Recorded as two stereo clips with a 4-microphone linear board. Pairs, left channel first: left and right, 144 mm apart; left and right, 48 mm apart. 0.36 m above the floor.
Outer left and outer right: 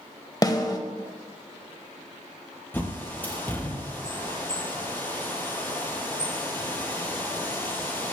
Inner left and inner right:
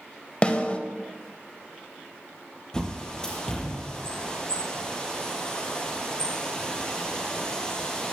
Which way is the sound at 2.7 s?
15° left (ahead or behind).